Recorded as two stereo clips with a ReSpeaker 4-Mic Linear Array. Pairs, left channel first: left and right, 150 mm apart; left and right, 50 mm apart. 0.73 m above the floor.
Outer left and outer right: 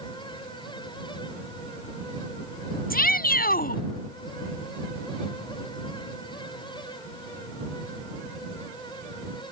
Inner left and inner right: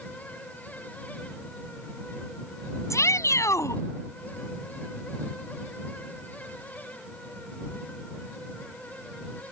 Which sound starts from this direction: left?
A shout, at 2.9 s.